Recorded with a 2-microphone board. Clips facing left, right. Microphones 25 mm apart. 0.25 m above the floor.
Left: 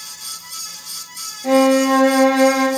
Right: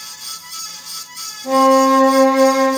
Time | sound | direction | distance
1.4 | a violin | 60° left (ahead or behind) | 4.5 m